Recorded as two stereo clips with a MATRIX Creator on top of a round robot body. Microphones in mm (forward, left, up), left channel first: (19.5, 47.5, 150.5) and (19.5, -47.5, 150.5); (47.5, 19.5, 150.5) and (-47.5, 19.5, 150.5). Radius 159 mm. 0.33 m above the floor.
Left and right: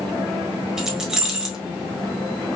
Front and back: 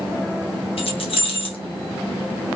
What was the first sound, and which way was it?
Keys jangling, 5° right.